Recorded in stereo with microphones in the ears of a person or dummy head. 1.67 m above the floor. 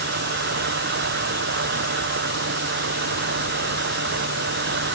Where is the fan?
50° right (ahead or behind).